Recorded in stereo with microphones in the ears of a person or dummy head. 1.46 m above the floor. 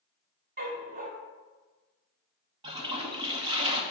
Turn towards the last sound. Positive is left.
turn(degrees=-30)  # may be behind; listen again after turning